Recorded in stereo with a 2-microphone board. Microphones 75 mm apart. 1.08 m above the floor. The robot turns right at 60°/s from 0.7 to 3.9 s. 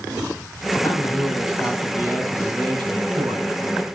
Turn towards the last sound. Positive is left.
turn(degrees=-45)